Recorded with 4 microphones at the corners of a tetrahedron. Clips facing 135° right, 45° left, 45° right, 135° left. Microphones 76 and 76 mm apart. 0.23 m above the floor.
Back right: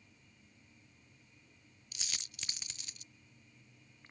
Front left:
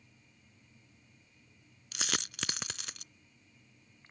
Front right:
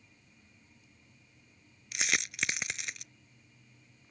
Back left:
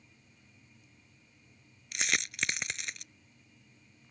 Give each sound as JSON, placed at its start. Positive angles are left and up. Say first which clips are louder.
{"t": 1.9, "sound": "a dropped coin", "louder": "front left 13 dB, even", "azimuth_deg": 45}